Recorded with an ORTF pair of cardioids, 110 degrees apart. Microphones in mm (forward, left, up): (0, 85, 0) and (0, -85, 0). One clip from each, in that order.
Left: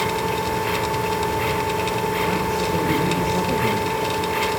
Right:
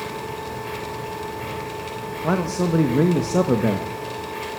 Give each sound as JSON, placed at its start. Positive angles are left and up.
{"t": 0.0, "sound": "a machine running", "azimuth_deg": 60, "distance_m": 2.5}
{"t": 2.2, "sound": "a man speaking", "azimuth_deg": -45, "distance_m": 2.5}